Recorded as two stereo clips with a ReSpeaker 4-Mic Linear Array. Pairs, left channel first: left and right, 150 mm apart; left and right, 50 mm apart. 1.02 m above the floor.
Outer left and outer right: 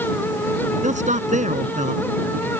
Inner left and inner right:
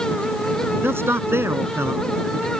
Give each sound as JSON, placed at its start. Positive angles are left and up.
{"t": 0.8, "sound": "a man speaking", "side_deg": -55}